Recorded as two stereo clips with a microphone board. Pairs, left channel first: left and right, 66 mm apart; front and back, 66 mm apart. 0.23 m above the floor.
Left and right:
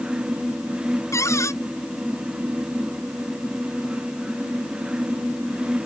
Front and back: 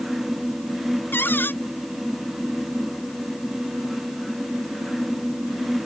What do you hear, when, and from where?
1.1 s a cupboard door: 55° left